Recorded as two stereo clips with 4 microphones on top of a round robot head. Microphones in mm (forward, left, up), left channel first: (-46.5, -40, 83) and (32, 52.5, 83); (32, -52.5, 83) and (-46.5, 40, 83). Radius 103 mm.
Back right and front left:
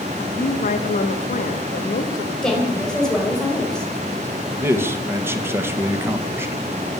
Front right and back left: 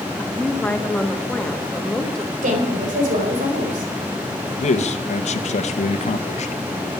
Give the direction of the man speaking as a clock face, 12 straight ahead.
1 o'clock.